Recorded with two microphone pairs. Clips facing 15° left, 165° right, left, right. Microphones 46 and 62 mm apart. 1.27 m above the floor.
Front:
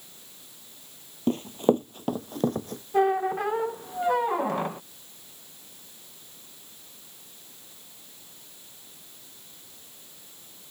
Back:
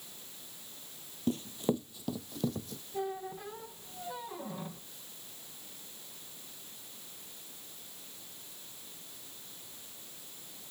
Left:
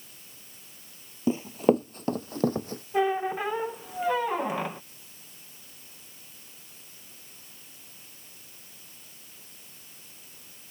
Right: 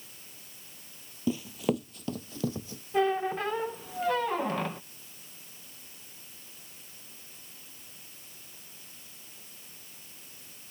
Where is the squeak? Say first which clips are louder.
Front 15 dB, left 1 dB; 15° left.